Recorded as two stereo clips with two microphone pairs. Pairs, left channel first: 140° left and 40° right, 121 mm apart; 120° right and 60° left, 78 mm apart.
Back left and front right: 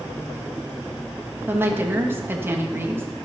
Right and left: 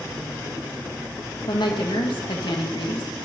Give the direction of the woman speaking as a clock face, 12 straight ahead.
4 o'clock.